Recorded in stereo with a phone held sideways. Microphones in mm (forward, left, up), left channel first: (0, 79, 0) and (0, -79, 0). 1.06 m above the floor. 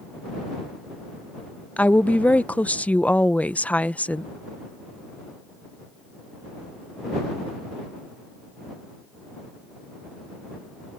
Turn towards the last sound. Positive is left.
turn(degrees=10)  # may be behind; listen again after turning